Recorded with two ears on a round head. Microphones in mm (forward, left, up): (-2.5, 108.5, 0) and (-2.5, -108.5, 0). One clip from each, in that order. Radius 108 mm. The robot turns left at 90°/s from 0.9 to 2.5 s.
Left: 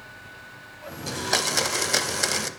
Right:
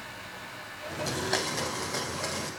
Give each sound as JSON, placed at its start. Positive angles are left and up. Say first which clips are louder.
{"t": 1.1, "sound": "a blender", "louder": "left 6 dB", "azimuth_deg": 180, "distance_m": 0.5}